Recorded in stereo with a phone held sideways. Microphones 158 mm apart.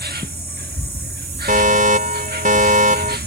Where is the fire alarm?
55° right (ahead or behind).